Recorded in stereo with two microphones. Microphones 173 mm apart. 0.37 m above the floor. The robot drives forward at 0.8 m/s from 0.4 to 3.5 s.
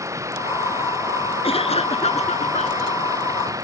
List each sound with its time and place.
0.0 s running water: 15° right (ahead or behind)
1.4 s a cough: 35° left (ahead or behind); by 3.0 s 40° left (ahead or behind)